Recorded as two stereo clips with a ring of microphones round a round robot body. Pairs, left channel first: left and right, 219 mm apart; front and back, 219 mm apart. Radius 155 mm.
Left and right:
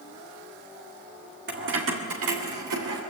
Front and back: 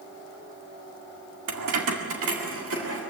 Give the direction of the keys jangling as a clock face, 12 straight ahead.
5 o'clock.